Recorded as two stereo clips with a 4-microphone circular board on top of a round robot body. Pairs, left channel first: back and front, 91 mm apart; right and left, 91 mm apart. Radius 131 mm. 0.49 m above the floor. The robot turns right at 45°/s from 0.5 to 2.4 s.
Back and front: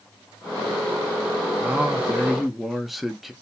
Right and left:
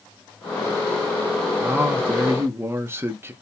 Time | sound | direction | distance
1.6 | a man speaking | 50° left | 0.8 m